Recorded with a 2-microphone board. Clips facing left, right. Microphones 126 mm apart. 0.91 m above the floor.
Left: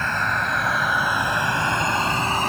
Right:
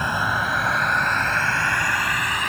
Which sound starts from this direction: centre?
A vehicle, at 0.0 s.